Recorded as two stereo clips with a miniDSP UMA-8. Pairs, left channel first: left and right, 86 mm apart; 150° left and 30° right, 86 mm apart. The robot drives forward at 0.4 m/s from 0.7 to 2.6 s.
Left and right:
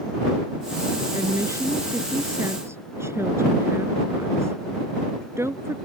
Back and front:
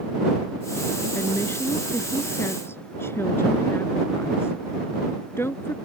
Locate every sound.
1.1 s a woman speaking: 145° right; by 5.8 s 150° right